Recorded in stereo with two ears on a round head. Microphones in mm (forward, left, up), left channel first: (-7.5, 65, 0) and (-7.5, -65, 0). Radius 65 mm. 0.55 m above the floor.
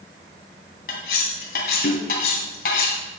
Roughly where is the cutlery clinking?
Left.